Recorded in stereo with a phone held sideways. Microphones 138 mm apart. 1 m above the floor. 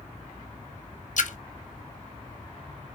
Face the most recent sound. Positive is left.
turn(degrees=65)  # may be behind; listen again after turning